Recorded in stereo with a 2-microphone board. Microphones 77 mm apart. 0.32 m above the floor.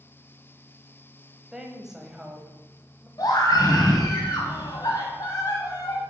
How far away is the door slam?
No door slam in this recording.